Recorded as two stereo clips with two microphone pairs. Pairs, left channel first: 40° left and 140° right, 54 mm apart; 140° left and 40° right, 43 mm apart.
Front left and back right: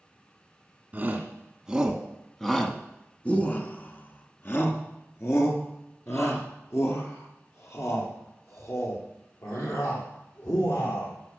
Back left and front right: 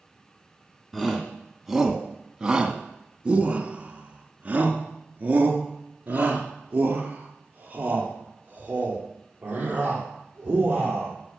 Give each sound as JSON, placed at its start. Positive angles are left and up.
{"t": 0.9, "sound": "a shout", "azimuth_deg": -140, "distance_m": 1.3}